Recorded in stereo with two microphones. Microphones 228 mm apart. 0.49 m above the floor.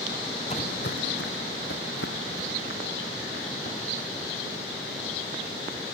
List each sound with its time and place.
0.5 s footsteps: 25° left (ahead or behind), 0.5 m; by 5.9 s 55° left (ahead or behind), 7.5 m